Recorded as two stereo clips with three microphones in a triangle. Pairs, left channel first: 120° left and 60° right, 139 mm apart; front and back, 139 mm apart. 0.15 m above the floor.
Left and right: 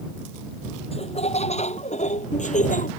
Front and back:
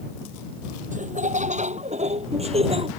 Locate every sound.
0.9 s laughter: 160° left; by 2.9 s 135° left